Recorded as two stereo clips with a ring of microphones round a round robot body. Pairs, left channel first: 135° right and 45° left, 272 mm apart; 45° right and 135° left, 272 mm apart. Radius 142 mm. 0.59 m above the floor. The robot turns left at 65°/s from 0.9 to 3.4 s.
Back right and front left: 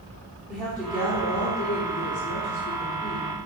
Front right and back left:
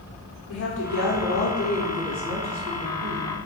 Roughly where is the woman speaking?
Ahead right.